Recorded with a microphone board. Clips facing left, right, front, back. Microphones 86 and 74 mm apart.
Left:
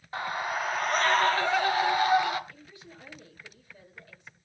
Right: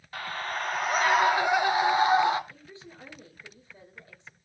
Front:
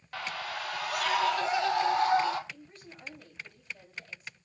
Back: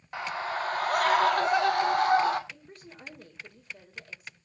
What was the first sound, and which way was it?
A scream, 130° left.